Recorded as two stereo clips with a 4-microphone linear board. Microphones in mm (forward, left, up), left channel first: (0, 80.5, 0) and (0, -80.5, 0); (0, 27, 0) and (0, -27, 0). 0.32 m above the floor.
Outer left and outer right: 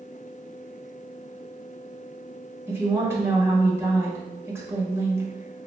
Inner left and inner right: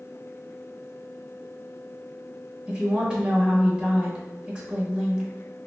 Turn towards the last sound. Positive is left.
turn(degrees=-15)  # may be behind; listen again after turning